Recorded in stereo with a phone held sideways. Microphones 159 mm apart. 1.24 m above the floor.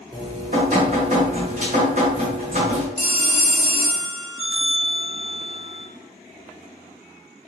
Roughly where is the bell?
Centre.